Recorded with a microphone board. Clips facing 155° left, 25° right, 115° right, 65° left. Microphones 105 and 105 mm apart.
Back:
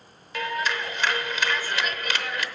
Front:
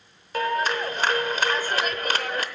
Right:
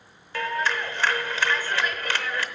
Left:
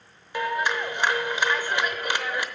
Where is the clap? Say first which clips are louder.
Front 4 dB, left 1 dB; straight ahead, 0.8 m.